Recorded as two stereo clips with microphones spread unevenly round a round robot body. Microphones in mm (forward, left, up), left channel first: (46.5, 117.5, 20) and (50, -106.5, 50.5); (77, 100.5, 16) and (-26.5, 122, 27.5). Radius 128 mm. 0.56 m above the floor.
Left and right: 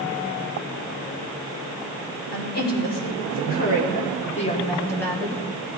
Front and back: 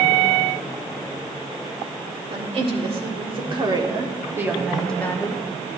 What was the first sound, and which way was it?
A woman speaking, 135° left.